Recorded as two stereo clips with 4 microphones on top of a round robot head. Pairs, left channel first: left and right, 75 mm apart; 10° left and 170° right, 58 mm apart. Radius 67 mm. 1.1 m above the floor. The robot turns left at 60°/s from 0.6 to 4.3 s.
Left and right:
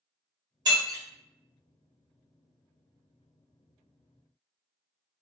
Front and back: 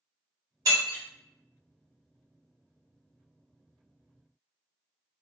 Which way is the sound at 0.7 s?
130° right.